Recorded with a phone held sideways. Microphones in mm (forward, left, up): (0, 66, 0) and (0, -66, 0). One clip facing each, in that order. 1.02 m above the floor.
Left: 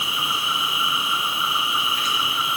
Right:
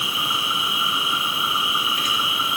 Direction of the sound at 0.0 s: 50° right (ahead or behind).